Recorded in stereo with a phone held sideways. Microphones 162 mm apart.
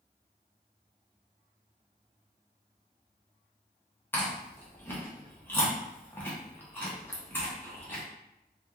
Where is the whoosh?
No whoosh in this recording.